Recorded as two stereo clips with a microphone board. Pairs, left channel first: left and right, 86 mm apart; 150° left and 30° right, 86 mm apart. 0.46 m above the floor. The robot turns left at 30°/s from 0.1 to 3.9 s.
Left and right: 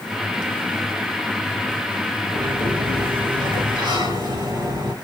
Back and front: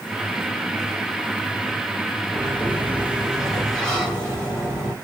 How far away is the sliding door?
About 3 m.